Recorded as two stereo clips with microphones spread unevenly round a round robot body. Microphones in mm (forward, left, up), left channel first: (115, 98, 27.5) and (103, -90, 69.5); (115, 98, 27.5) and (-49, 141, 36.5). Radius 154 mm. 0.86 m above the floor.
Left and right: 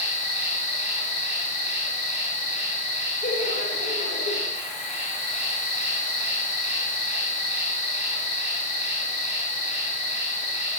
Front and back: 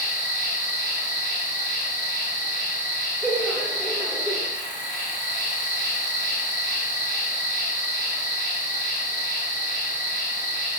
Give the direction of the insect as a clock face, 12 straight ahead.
11 o'clock.